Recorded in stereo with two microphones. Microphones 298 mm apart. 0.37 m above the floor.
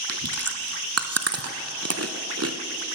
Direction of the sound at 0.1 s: 50° right (ahead or behind).